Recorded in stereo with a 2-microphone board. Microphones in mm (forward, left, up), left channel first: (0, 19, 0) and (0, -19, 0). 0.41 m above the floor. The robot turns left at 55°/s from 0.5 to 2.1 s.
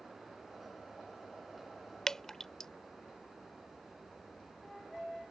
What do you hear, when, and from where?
2.1 s dripping: 15° left (ahead or behind); by 2.7 s 10° left (ahead or behind)